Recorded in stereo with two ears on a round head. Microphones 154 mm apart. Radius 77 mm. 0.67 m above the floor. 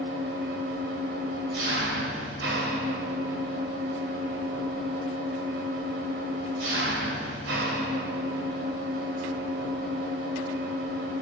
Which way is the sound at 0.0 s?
75° right (ahead or behind).